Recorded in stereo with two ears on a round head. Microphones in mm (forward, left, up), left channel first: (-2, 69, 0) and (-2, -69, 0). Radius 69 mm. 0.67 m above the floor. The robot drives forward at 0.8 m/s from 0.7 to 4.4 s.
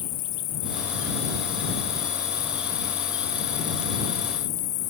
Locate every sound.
0.0 s an insect: 70° left (ahead or behind); by 4.9 s 80° left